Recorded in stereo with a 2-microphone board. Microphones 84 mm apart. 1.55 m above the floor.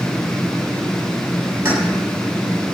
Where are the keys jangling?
25° right (ahead or behind), 7 m.